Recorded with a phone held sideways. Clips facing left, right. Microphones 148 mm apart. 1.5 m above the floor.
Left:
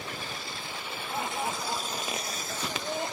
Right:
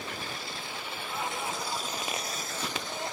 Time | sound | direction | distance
1.1 | laughter | 65° left (ahead or behind) | 3 m